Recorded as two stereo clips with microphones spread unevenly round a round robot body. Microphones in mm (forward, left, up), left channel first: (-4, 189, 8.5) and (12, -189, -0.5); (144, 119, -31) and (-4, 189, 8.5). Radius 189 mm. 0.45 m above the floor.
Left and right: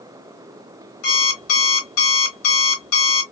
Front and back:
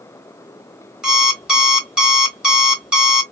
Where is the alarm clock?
65° left, 1.5 m.